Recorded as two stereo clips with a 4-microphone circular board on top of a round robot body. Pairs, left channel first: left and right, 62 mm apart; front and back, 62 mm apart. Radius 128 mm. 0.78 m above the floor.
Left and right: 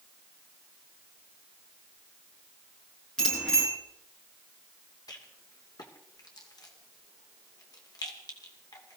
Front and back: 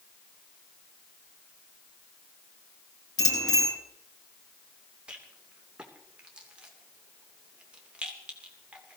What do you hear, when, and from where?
3.2 s a bicycle bell: 10° left, 9 m
5.1 s a rattle: 105° left, 2.5 m